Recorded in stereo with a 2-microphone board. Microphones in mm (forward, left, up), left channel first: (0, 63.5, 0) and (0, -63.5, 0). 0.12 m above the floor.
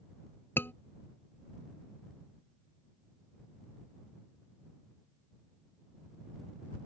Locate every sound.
0.6 s a scream: 15° left (ahead or behind)